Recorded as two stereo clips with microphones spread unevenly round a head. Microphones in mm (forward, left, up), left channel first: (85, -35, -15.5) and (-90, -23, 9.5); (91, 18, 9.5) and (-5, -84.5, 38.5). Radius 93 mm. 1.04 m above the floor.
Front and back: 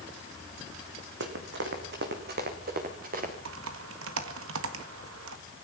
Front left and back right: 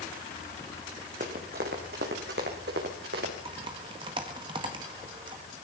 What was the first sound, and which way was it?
Running footsteps, straight behind.